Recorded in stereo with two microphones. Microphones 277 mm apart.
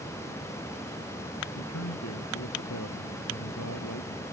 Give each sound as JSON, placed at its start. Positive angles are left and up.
{"t": 1.6, "sound": "a man speaking", "side_deg": 75}